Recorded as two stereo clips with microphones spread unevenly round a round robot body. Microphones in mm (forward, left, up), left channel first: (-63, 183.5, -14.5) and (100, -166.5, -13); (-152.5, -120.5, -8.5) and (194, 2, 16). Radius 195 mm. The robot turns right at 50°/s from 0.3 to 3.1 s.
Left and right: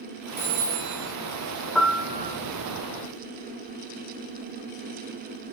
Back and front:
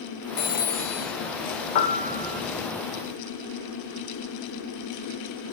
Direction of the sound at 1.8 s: 155° right.